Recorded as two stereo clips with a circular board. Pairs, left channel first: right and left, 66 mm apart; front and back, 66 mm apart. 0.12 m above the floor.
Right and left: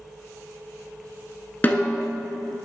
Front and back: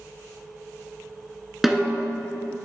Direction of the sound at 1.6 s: 100° right.